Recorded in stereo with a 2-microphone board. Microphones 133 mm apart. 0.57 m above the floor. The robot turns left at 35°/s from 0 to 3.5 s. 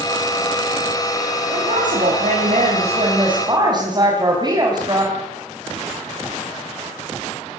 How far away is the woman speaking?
About 4.5 m.